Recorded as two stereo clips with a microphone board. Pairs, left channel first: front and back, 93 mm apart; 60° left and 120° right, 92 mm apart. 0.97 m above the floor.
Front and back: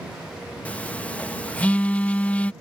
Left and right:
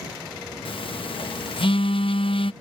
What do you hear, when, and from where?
0.7 s a phone buzzing: 75° left